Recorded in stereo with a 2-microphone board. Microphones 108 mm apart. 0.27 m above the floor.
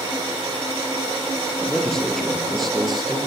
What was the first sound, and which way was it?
A man speaking, 5° left (ahead or behind).